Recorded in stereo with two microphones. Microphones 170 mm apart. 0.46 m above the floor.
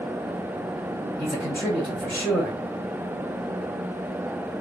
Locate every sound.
1.2 s a man speaking: 10° left (ahead or behind), 1.8 m